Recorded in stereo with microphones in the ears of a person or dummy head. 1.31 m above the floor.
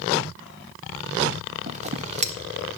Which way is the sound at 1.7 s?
35° right (ahead or behind).